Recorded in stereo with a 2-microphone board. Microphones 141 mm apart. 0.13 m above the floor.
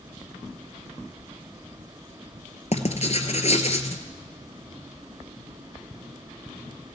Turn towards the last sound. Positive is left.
turn(degrees=55)  # may be behind; listen again after turning